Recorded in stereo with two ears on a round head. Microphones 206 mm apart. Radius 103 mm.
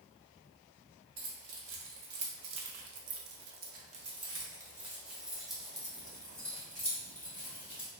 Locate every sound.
1.2 s keys jangling: 55° right (ahead or behind), 1.3 m; by 7.9 s 10° left (ahead or behind), 2.5 m